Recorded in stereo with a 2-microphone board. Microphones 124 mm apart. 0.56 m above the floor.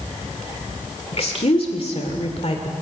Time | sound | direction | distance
1.1 | a woman speaking | 55° left (ahead or behind) | 2 m